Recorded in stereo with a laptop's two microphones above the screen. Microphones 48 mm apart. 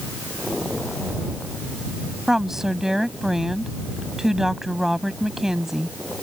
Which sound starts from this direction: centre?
A woman speaking, at 2.3 s.